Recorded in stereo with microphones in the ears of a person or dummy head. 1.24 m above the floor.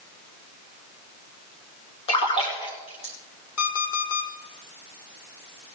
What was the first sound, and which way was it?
A splash, 30° left (ahead or behind).